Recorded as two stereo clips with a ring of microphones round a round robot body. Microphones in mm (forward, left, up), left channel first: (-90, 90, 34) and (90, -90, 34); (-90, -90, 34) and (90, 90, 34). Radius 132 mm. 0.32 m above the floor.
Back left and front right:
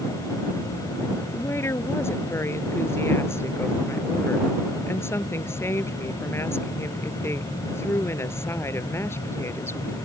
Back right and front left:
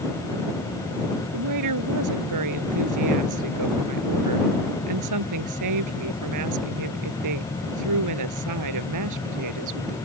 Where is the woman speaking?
55° left.